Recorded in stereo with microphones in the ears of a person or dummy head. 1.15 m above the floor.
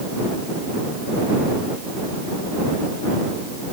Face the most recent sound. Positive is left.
No sound to turn to.